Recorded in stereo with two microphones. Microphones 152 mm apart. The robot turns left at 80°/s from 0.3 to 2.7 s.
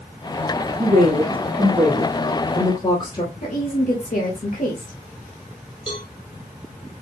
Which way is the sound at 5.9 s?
35° left (ahead or behind).